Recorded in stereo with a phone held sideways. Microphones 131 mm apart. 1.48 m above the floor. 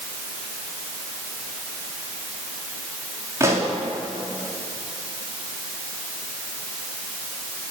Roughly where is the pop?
Right.